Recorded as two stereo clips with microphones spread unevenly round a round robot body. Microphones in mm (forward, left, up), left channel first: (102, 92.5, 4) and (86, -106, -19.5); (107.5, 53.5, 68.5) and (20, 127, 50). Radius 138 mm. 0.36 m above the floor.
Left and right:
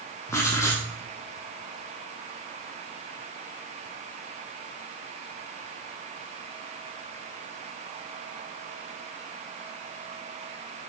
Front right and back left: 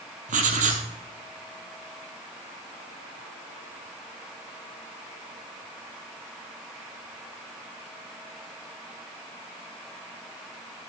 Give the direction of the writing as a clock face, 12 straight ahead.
7 o'clock.